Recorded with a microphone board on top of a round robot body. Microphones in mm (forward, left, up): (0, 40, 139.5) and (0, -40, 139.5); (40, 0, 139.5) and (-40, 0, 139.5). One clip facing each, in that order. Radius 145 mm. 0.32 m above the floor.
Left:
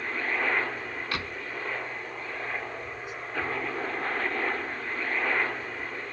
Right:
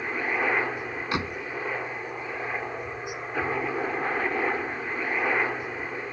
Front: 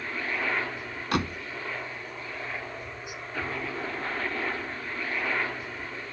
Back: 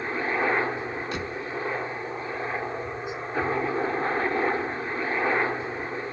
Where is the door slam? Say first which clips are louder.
Right 6 dB, front 3 dB; 20° right.